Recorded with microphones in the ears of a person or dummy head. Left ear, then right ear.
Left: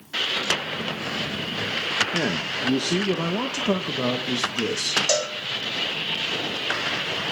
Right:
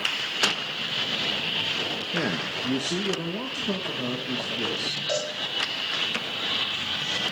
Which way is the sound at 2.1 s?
10° right (ahead or behind).